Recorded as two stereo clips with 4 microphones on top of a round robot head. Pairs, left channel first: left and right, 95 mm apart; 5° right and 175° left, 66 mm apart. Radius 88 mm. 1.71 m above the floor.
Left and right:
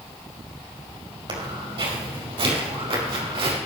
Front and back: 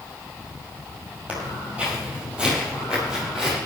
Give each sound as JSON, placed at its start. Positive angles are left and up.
{"t": 1.3, "sound": "footsteps", "azimuth_deg": -115, "distance_m": 4.5}